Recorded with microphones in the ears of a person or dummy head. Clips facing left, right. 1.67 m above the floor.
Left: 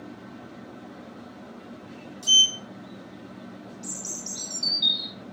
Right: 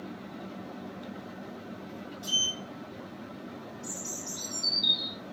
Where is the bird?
80° left, 1.0 m.